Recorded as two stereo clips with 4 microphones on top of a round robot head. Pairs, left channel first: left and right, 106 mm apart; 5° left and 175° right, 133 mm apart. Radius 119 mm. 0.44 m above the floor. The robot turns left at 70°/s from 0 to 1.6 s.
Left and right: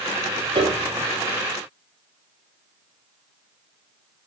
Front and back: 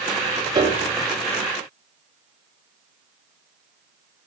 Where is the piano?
125° right, 1.9 m; by 0.9 s 150° right, 1.9 m.